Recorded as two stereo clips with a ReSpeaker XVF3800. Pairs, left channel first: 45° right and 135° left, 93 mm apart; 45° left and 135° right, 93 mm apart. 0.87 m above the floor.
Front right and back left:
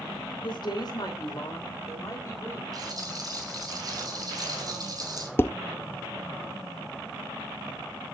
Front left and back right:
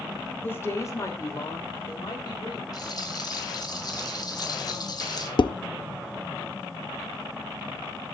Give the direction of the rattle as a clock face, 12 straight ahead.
9 o'clock.